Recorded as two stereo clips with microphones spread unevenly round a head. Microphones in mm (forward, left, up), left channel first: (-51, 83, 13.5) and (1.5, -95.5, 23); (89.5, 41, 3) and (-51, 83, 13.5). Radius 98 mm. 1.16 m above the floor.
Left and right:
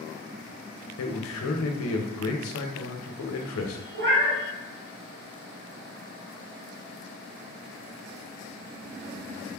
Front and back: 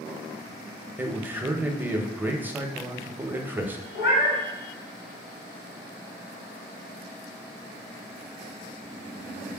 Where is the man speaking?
85° left, 0.8 m.